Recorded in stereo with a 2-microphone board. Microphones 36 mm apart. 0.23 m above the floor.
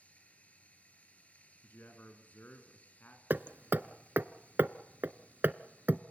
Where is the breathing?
No breathing in this recording.